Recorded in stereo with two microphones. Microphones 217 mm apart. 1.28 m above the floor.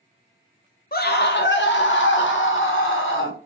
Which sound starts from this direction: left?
A scream, at 0.9 s.